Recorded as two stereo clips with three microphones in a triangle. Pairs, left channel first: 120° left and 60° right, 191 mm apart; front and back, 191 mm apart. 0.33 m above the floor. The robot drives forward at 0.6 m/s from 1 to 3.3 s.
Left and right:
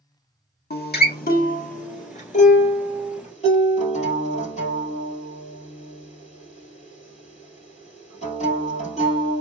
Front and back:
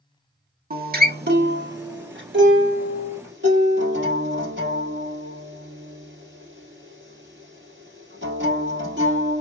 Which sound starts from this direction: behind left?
A guitar, at 0.7 s.